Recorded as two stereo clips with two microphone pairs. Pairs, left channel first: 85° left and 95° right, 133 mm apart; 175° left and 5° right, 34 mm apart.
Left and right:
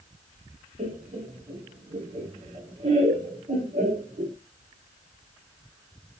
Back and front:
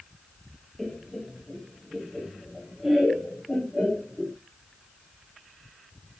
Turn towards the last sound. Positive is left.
turn(degrees=-80)